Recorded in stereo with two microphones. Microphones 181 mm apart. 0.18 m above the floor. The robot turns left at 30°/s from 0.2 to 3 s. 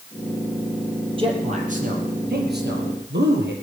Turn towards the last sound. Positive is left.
turn(degrees=-75)  # may be behind; listen again after turning